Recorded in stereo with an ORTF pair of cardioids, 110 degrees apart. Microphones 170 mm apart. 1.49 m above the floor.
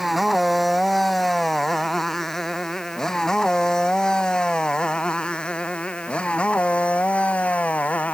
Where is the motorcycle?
Straight ahead; by 8.2 s 10° left.